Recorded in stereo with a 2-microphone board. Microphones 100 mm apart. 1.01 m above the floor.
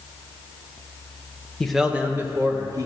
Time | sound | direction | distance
1.6 | a man speaking | 10° left (ahead or behind) | 0.8 m